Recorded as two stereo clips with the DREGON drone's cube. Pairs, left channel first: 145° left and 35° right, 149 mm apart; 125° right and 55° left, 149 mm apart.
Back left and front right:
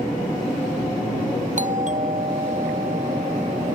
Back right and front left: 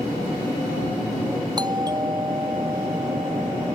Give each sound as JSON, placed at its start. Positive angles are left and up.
{"t": 1.6, "sound": "a doorbell", "azimuth_deg": -5}